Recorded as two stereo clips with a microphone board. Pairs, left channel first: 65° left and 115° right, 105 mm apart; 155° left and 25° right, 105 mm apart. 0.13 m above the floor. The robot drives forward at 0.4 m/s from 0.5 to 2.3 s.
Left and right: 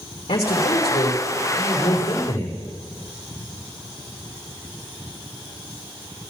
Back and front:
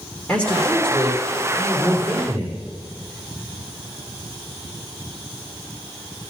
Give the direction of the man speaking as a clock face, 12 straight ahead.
9 o'clock.